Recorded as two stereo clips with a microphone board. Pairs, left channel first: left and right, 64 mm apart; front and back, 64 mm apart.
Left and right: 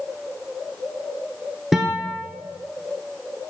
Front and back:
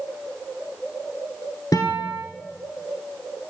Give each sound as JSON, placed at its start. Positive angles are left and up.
{"t": 1.7, "sound": "a guitar", "azimuth_deg": 0, "distance_m": 1.4}